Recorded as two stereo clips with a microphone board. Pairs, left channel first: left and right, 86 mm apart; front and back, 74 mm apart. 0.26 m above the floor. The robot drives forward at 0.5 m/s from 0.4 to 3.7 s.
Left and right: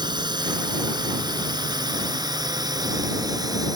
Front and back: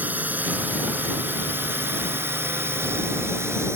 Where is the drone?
115° right; by 3.8 s 130° right.